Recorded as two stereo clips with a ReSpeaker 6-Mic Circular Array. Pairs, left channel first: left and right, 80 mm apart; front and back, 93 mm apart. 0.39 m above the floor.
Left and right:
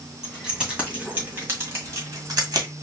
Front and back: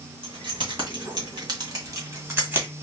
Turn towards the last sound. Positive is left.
turn(degrees=-115)